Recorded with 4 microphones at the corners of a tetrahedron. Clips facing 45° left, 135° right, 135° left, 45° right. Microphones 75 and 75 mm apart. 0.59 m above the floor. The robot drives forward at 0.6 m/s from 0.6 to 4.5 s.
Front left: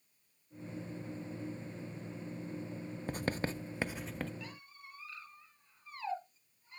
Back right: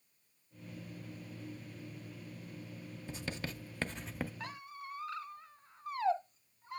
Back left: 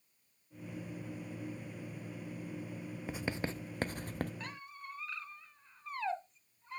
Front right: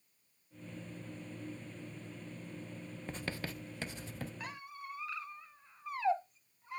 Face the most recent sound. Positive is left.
turn(degrees=-130)